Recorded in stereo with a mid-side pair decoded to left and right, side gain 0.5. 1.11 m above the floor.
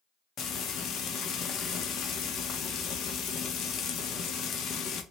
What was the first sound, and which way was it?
Frying, 60° left.